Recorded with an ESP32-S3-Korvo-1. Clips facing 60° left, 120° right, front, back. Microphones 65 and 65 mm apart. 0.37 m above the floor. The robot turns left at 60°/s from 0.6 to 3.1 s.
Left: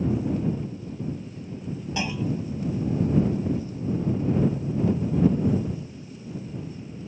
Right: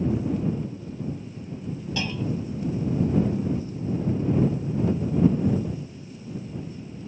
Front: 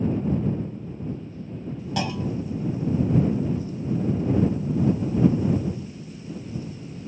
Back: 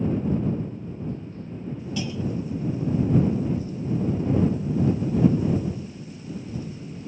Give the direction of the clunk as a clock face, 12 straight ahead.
12 o'clock.